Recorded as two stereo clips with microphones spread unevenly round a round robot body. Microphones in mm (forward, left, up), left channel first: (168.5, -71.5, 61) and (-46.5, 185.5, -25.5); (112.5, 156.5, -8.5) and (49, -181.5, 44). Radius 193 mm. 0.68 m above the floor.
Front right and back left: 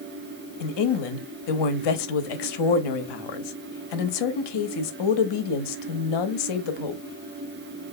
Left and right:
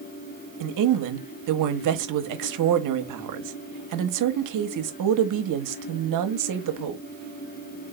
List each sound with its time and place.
0.6 s a woman speaking: 65° right, 0.9 m